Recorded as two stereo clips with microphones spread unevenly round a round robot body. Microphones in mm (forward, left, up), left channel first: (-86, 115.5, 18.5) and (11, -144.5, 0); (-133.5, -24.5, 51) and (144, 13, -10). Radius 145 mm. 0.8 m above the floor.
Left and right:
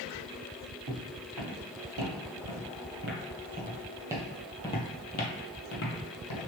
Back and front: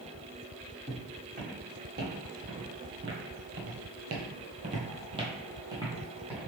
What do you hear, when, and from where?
0.9 s footsteps: 60° right, 1.9 m; by 6.5 s 100° left, 1.4 m